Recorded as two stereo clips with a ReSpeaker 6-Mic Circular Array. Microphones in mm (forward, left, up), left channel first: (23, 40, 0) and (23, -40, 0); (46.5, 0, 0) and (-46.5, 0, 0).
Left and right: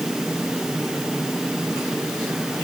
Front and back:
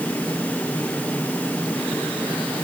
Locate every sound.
Only background noise.